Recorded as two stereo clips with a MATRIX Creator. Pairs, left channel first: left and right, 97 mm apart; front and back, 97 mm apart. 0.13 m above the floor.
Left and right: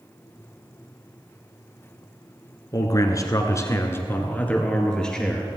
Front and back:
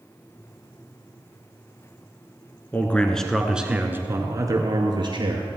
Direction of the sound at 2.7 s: 65° left.